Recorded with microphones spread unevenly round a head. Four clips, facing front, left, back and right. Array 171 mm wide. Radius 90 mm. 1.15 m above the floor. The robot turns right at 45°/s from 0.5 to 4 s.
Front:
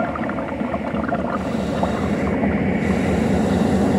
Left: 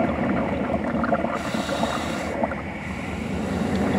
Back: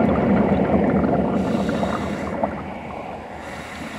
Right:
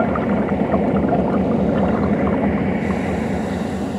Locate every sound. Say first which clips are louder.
0.0 s an engine running: right 4 dB, back 6 dB; 145° right; by 4.0 s 10° left